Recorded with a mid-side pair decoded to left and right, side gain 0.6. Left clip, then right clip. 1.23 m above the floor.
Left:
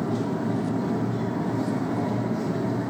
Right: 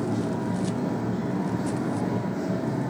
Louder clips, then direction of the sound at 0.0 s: Left 1 dB; 20° left.